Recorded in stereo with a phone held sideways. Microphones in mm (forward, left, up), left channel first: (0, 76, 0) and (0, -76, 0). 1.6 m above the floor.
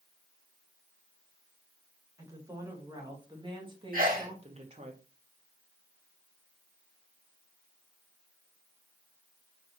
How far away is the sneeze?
About 3 m.